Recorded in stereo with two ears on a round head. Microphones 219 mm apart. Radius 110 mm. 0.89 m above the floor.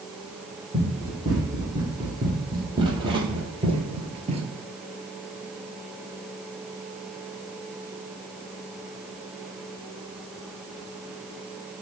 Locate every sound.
0.7 s running footsteps: 15° right (ahead or behind), 3.5 m; by 4.5 s 25° right (ahead or behind), 1.1 m